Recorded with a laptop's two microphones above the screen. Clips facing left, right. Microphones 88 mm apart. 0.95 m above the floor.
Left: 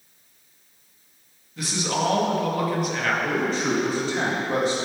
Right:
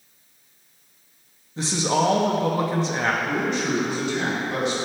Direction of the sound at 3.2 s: 40° left (ahead or behind).